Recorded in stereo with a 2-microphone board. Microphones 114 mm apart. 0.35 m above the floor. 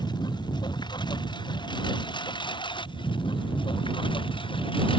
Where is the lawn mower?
40° left (ahead or behind); by 5.0 s 50° left (ahead or behind).